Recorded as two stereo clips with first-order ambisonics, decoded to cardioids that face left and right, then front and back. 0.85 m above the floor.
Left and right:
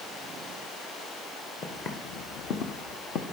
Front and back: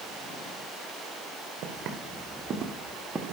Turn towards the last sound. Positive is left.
turn(degrees=100)